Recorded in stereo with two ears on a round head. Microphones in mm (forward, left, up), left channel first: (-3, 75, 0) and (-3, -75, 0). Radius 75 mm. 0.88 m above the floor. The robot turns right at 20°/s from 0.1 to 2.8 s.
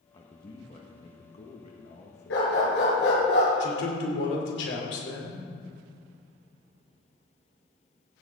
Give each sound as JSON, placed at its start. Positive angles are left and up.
{"t": 0.1, "sound": "a man speaking", "azimuth_deg": 35, "distance_m": 1.1}
{"t": 2.3, "sound": "a dog barking", "side_deg": 85, "distance_m": 5.5}
{"t": 3.6, "sound": "a man speaking", "side_deg": 75, "distance_m": 3.5}